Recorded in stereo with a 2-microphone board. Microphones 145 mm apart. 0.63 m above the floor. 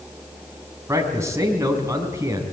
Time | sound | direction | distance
0.9 | a man speaking | 20° right (ahead or behind) | 4.5 m